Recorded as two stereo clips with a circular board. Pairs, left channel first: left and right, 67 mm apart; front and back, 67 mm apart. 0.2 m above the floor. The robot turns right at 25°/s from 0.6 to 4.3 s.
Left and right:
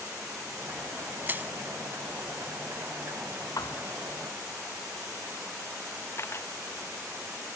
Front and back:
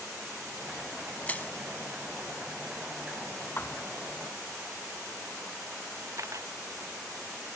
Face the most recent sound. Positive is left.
turn(degrees=140)